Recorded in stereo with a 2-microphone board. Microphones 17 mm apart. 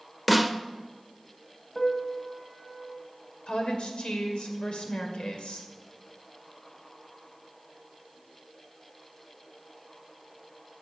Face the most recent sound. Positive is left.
turn(degrees=70)  # may be behind; listen again after turning